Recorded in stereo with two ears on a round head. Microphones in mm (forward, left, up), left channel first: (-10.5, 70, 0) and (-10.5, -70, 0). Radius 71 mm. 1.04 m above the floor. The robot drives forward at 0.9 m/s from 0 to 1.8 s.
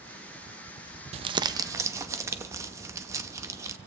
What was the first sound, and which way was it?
Crumpling, 40° right (ahead or behind).